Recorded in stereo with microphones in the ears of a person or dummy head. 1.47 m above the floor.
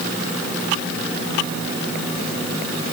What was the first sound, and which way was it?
Only background noise.